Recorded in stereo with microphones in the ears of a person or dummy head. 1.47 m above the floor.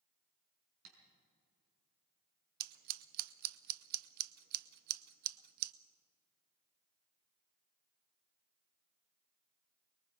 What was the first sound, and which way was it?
Tapping, 75° right (ahead or behind).